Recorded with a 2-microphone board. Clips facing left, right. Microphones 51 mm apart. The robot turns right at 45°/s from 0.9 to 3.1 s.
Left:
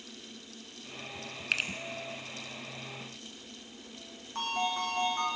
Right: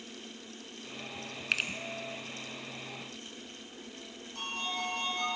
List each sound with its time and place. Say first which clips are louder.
1.5 s a finger snap: even; centre (ahead or behind), 0.9 m; by 1.7 s 5° right (ahead or behind), 0.9 m
4.3 s a ringtone: left 5 dB; 40° left (ahead or behind), 5 m